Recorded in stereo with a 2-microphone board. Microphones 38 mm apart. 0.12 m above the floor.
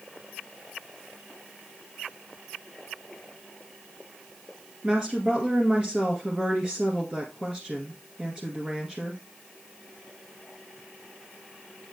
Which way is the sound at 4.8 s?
25° right (ahead or behind).